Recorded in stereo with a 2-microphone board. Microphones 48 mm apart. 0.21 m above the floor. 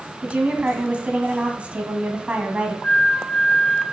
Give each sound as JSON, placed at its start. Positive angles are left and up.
{"t": 0.2, "sound": "a woman speaking", "side_deg": -25, "distance_m": 1.8}
{"t": 2.8, "sound": "a flute", "side_deg": 30, "distance_m": 2.0}